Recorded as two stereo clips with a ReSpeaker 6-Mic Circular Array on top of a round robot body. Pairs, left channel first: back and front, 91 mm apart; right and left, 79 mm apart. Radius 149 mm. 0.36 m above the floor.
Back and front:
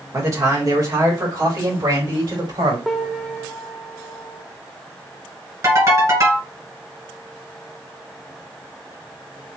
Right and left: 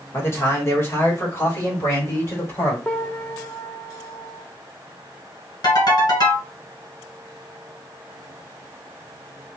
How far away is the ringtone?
About 2.5 m.